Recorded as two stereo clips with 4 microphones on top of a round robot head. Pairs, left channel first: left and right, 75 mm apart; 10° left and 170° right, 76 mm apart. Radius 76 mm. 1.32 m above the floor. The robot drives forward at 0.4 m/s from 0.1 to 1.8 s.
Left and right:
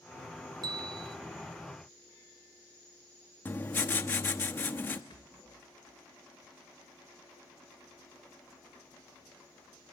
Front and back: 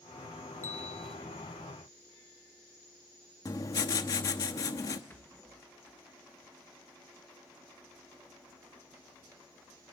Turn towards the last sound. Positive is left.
turn(degrees=70)